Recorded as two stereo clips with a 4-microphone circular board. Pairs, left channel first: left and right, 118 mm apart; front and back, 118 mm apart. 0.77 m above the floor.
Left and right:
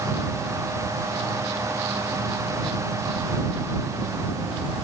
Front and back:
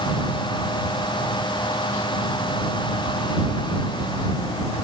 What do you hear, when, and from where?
Only background noise.